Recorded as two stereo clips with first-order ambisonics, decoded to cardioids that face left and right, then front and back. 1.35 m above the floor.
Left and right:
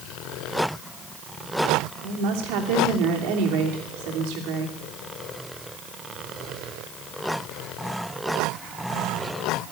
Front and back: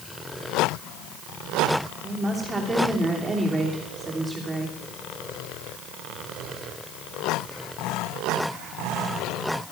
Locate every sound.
2.0 s a woman speaking: 100° right, 3 m